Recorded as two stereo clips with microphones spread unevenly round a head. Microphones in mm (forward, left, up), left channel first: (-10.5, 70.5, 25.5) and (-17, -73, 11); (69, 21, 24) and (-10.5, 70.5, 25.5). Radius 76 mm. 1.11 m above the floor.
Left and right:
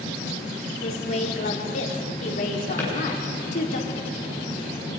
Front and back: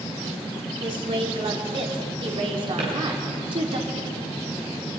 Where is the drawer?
165° left, 8.5 m.